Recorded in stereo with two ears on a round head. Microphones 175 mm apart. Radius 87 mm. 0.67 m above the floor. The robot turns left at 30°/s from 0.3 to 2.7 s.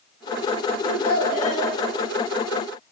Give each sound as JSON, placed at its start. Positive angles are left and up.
{"t": 0.8, "sound": "a child speaking", "side_deg": 60, "distance_m": 9.0}